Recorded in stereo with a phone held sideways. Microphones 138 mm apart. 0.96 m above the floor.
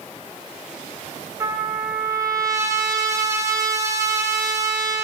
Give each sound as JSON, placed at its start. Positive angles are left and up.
{"t": 1.4, "sound": "a trumpet", "side_deg": -20, "distance_m": 1.4}